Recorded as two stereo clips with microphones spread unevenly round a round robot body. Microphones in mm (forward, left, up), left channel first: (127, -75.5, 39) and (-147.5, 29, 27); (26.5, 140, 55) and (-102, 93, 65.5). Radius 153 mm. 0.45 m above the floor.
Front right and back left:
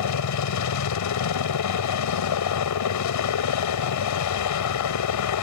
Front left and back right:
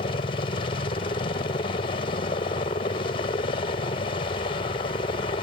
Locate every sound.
0.0 s a helicopter: 25° right